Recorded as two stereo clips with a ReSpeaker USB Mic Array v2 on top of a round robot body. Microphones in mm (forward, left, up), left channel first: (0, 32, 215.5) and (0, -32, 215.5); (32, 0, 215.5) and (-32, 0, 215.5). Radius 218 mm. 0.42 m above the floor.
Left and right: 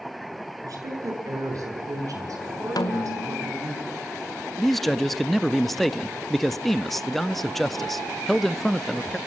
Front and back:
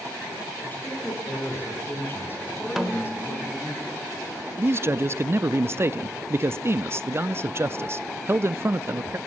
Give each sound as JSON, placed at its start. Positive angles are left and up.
{"t": 0.6, "sound": "a woman speaking", "azimuth_deg": -60, "distance_m": 8.0}
{"t": 2.8, "sound": "a snare drum", "azimuth_deg": 95, "distance_m": 1.9}
{"t": 4.6, "sound": "a man speaking", "azimuth_deg": 175, "distance_m": 0.8}